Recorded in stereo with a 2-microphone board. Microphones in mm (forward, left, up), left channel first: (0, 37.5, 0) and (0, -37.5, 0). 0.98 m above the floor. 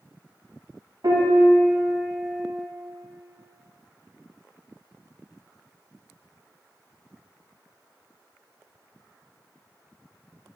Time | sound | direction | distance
1.0 | a piano | 70° right (ahead or behind) | 2 m